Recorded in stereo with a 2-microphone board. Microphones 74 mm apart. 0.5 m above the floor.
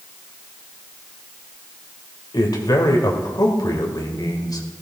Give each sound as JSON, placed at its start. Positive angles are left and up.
{"t": 2.3, "sound": "a man speaking", "side_deg": 60, "distance_m": 2.0}